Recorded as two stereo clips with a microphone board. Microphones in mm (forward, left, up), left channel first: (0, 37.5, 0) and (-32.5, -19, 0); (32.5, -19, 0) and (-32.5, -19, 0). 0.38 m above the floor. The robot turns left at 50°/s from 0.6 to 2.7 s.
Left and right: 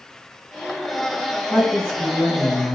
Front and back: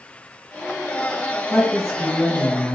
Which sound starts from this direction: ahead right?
A woman speaking, at 1.5 s.